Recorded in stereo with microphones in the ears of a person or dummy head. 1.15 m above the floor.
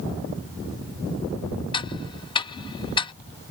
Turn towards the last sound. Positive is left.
turn(degrees=25)  # may be behind; listen again after turning